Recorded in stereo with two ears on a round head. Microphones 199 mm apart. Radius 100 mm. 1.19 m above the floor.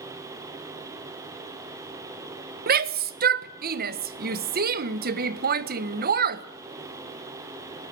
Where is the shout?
45° right (ahead or behind), 1.3 m.